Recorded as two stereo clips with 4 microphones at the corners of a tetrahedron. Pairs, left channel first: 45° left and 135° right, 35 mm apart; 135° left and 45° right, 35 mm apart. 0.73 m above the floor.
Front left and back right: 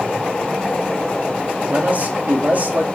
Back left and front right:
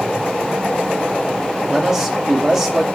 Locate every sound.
1.7 s a man speaking: 120° right, 1.7 m